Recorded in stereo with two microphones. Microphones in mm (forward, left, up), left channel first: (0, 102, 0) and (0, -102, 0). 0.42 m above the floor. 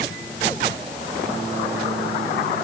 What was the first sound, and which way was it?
Only background noise.